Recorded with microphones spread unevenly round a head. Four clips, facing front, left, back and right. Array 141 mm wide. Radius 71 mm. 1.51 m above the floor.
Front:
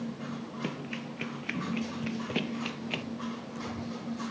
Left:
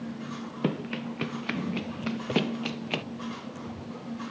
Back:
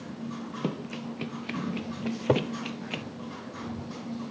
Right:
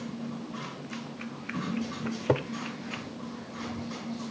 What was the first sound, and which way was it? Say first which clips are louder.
Running footsteps: left 8 dB, back 5 dB; 110° left.